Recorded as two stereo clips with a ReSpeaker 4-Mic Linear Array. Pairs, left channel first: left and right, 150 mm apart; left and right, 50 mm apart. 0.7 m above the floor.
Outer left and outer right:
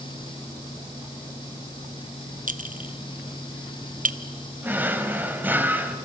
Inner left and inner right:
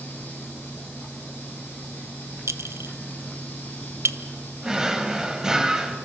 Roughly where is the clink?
Right.